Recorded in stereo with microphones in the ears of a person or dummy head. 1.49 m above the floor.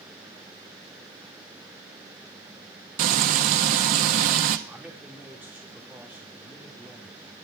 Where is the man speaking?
10° right (ahead or behind), 3.5 m.